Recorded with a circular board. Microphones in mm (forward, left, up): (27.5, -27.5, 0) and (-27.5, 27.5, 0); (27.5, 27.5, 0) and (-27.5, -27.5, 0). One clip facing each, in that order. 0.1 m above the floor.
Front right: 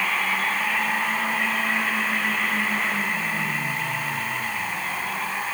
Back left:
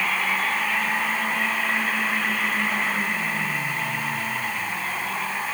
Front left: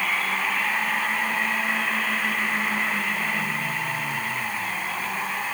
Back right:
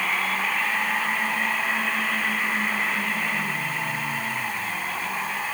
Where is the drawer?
No drawer in this recording.